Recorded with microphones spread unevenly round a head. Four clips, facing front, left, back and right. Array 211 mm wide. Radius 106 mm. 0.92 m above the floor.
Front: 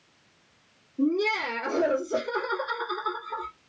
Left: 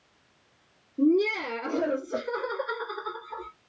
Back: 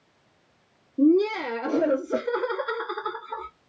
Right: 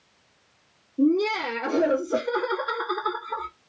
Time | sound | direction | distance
1.0 | laughter | 170° left | 1.2 m